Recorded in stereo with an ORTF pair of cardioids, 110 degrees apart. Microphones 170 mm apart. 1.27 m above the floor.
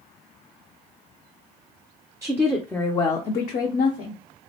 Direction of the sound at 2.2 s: 20° right.